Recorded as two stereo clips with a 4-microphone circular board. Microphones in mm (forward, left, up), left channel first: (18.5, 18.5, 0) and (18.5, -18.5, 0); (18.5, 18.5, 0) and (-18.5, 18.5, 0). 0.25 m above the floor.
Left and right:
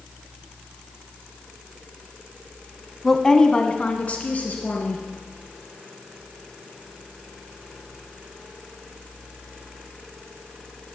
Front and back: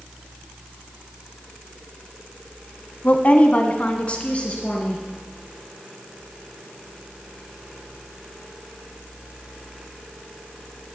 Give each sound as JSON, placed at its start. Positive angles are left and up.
{"t": 3.0, "sound": "a woman speaking", "azimuth_deg": 10, "distance_m": 1.4}